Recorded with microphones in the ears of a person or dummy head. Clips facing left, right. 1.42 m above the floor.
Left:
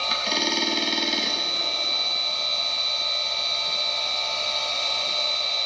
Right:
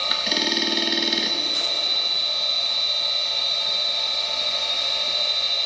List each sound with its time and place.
0.0 s a machine running: 15° right (ahead or behind), 1.0 m